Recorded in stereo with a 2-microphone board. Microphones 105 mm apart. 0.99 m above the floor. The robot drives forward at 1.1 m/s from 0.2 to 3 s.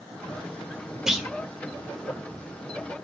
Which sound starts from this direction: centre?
A clunk, at 1.1 s.